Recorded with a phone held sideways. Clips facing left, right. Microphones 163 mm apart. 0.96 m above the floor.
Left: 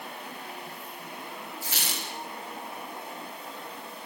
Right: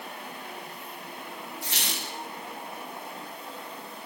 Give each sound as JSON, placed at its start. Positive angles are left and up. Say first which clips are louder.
{"t": 1.6, "sound": "a squeak", "louder": "even", "side_deg": 0, "distance_m": 4.0}